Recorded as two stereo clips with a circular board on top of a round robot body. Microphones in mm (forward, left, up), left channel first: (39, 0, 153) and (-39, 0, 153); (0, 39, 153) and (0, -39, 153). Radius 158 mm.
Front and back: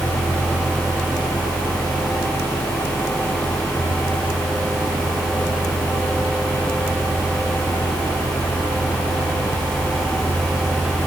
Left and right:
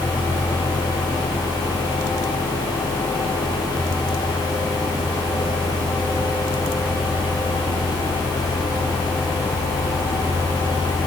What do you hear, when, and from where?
Only background noise.